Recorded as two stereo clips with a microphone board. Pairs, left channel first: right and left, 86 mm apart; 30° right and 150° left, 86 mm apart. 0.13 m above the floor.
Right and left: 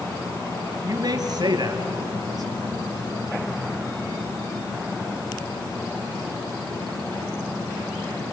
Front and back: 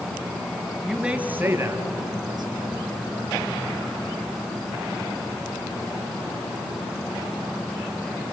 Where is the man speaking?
65° left, 2.5 m; by 3.5 s 140° left, 4.5 m.